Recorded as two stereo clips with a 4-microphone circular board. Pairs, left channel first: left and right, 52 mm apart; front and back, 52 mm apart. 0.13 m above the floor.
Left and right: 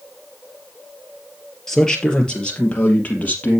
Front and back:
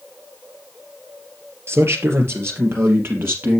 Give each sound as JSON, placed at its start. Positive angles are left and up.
{"t": 1.7, "sound": "a man speaking", "azimuth_deg": 170, "distance_m": 3.0}